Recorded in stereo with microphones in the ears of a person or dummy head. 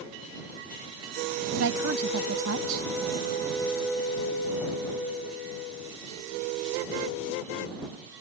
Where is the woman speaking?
80° right.